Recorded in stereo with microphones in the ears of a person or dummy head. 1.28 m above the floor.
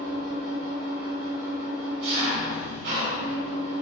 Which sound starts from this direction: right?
An engine running, at 0.0 s.